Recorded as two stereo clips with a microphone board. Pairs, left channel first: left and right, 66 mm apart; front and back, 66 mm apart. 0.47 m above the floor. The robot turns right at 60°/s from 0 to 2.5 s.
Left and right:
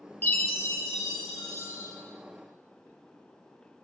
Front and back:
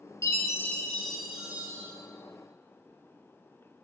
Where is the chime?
35° left, 1.8 m; by 1.9 s 135° left, 1.8 m.